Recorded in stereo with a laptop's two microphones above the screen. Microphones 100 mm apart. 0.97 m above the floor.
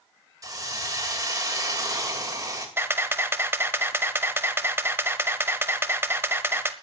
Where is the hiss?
35° right (ahead or behind), 2.5 m.